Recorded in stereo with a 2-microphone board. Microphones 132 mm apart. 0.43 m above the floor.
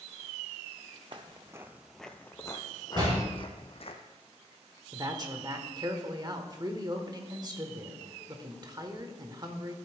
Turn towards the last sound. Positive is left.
turn(degrees=-35)  # may be behind; listen again after turning